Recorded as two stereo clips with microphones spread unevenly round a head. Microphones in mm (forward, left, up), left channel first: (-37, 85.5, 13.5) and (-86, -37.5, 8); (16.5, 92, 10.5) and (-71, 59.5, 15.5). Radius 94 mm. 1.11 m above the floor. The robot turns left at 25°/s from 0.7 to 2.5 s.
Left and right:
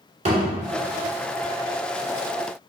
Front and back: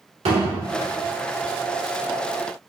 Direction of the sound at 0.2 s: 150° right.